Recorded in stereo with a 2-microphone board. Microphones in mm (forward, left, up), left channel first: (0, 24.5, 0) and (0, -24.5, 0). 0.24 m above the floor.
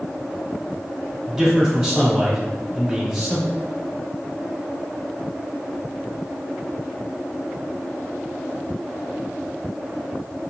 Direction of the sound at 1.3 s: 15° right (ahead or behind).